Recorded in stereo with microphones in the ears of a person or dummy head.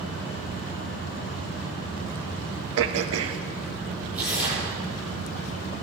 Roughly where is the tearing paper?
Centre.